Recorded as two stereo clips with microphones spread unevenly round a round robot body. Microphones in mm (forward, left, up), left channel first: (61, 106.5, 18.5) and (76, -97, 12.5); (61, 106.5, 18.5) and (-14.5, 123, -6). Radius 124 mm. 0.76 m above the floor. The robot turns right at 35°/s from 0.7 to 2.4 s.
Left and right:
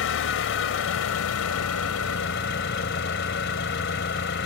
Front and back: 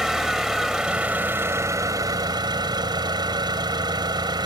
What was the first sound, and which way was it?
An engine running, 80° left.